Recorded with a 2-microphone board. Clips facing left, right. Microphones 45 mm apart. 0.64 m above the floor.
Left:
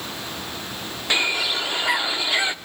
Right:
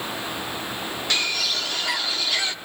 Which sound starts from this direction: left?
A bird, at 1.1 s.